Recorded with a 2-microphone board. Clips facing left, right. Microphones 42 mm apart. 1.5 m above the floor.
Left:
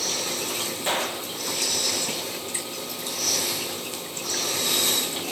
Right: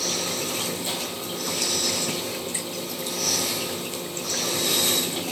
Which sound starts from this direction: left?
A gunshot, at 0.9 s.